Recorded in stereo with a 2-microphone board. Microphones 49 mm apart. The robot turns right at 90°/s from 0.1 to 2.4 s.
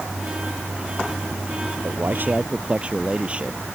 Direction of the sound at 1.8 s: 75° right.